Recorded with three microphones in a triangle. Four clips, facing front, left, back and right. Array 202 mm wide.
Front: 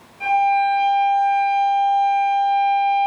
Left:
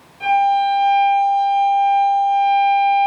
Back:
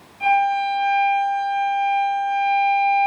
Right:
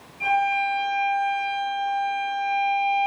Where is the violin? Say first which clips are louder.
Left 8 dB, front 1 dB; 90° left, 1.2 m.